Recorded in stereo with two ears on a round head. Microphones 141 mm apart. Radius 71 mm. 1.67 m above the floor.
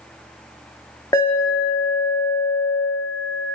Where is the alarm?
25° left (ahead or behind), 2 m.